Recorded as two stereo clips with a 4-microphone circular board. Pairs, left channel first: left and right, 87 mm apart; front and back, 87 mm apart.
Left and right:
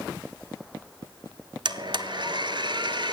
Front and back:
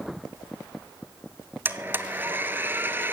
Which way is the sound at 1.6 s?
115° right.